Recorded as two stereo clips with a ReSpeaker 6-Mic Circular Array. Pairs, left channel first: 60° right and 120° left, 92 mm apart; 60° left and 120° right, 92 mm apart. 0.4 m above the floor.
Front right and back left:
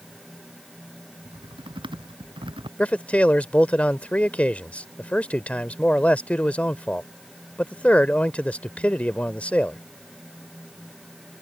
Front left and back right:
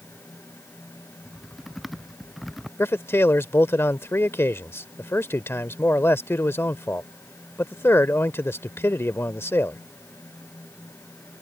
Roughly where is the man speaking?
Ahead.